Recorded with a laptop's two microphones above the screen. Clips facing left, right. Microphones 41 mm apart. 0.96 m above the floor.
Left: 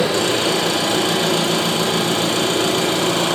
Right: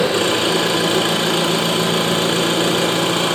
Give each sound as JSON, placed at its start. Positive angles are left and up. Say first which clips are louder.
{"t": 0.0, "sound": "an engine running", "louder": "right 1 dB", "side_deg": -35, "distance_m": 3.0}